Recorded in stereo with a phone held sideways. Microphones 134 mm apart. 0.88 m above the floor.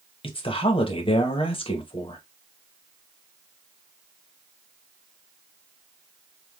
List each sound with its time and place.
0.2 s a woman speaking: 40° left (ahead or behind), 0.8 m